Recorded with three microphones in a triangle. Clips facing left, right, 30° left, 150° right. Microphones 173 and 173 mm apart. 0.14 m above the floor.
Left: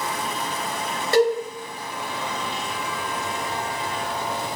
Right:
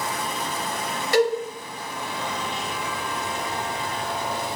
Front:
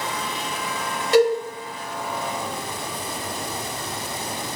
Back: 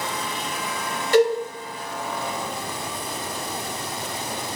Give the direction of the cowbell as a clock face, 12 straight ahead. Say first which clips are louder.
Left 2 dB, front 1 dB; 10 o'clock.